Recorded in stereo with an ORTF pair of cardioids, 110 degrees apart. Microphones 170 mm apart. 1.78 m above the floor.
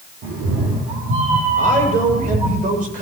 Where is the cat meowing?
60° right, 9 m; by 2.6 s 40° right, 7.5 m.